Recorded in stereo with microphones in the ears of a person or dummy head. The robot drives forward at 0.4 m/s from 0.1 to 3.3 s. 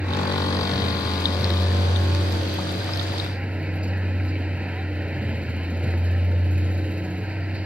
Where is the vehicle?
5° right (ahead or behind).